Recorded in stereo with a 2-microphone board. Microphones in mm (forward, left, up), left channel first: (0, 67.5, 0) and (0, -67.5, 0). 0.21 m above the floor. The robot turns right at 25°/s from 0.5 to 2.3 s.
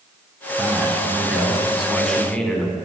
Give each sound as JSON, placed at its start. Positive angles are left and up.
{"t": 0.6, "sound": "a man speaking", "azimuth_deg": -30, "distance_m": 1.6}